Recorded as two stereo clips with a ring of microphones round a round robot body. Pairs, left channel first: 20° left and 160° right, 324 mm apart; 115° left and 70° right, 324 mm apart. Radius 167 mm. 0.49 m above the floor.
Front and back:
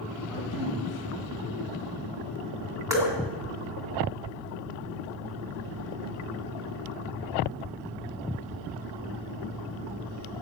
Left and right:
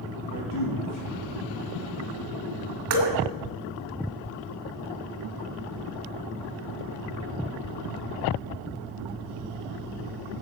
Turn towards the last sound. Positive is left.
turn(degrees=-75)